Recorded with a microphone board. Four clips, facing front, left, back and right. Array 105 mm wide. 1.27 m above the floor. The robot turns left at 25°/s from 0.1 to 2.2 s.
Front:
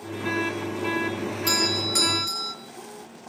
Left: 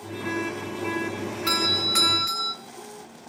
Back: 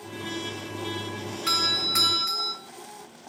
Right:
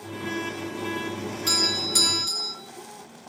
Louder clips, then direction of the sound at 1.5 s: Left 3 dB, front 2 dB; 130° left.